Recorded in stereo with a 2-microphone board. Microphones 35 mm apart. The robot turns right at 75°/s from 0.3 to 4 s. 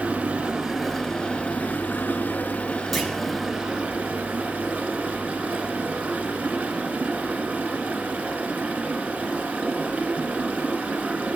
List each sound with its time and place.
0.0 s running water: 40° right, 0.8 m; by 11.4 s 125° right, 0.8 m
2.9 s a clunk: centre (ahead or behind), 0.7 m; by 3.1 s 10° right (ahead or behind), 0.7 m